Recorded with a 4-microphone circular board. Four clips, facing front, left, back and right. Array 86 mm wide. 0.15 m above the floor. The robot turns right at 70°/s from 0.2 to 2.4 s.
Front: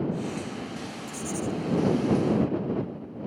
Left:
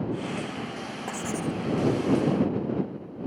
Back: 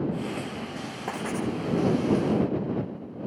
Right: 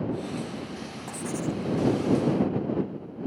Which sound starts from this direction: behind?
Writing, at 1.1 s.